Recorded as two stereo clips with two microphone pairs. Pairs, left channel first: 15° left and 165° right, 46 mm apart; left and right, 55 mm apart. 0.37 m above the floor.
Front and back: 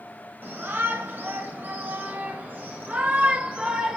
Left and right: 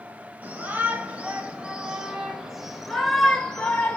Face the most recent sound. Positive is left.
turn(degrees=150)